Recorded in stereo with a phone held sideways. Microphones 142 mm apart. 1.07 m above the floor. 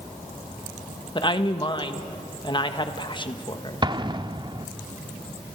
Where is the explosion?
30° right (ahead or behind), 0.7 m.